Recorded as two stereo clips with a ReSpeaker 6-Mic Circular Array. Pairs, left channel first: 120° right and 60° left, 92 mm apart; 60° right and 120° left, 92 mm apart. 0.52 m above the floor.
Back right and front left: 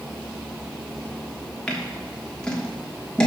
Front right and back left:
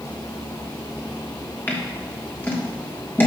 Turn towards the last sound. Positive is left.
turn(degrees=-55)